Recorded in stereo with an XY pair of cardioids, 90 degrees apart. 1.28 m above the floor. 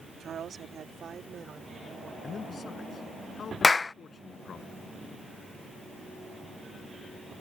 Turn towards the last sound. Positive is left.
turn(degrees=30)